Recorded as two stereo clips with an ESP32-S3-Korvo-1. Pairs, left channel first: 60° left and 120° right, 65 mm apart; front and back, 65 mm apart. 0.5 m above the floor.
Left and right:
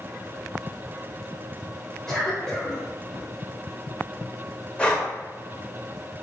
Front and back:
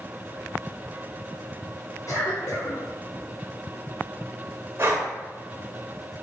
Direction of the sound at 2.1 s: 20° right.